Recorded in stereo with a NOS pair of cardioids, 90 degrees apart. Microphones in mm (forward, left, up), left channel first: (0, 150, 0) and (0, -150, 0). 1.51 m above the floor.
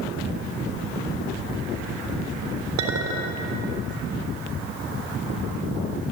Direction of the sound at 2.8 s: 65° right.